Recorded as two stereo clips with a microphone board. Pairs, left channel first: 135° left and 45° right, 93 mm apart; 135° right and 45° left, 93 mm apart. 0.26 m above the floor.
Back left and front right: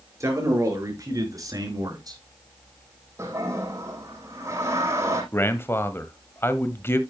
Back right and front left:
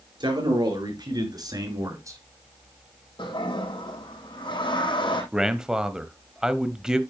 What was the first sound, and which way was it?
A man speaking, 10° left.